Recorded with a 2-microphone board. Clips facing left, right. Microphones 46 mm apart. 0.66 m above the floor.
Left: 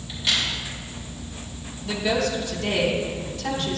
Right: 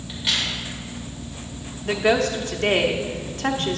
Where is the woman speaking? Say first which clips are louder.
Right 4 dB; 55° right (ahead or behind), 0.9 m.